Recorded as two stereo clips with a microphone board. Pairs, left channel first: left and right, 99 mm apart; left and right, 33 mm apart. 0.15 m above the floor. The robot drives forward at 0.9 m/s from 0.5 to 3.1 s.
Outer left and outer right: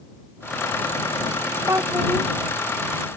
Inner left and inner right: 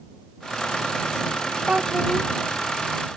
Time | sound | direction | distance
1.7 | a child speaking | 30° right (ahead or behind) | ?